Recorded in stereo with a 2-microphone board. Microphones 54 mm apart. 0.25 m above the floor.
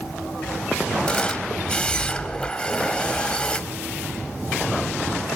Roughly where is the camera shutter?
Centre.